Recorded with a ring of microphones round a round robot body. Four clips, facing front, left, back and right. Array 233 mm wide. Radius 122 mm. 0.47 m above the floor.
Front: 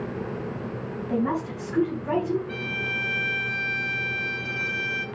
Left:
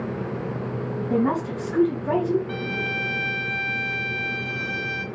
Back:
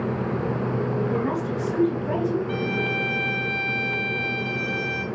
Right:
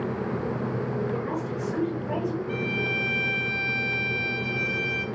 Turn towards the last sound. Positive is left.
turn(degrees=110)